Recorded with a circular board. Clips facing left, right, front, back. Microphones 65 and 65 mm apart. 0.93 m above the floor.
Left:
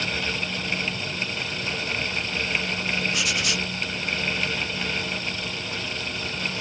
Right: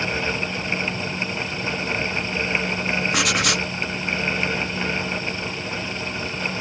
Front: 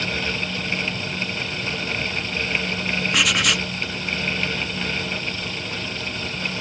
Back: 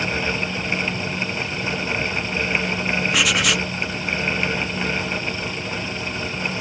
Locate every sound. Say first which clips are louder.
3.1 s writing: right 5 dB, even; 90° right